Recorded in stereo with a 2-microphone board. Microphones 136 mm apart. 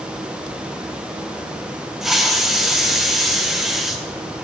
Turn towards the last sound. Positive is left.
turn(degrees=0)  # may be behind; listen again after turning